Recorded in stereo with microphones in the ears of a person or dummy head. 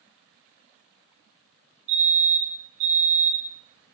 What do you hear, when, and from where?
1.9 s a fire alarm: 70° right (ahead or behind), 2.5 m